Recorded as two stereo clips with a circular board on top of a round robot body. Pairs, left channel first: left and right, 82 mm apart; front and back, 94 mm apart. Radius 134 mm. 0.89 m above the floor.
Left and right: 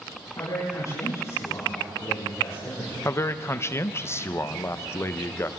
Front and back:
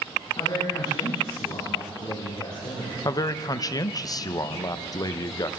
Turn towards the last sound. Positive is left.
turn(degrees=40)